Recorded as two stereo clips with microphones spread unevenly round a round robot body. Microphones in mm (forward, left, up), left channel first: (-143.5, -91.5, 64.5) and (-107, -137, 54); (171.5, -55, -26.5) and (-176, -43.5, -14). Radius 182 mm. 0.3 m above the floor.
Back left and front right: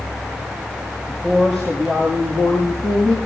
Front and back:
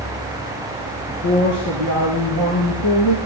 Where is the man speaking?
40° left, 5 m; by 3.2 s 30° left, 4 m.